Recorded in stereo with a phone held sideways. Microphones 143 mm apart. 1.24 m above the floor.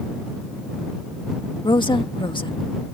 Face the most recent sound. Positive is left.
turn(degrees=35)  # may be behind; listen again after turning